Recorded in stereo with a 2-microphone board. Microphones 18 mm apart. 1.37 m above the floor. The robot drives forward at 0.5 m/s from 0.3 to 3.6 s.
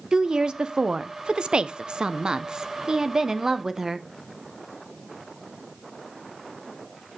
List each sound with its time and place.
0.1 s a woman speaking: 50° right (ahead or behind), 0.9 m; by 4.1 s 35° right (ahead or behind), 1.3 m